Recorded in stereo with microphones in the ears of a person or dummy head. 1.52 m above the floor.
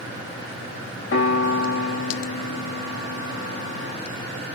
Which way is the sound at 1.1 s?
85° left.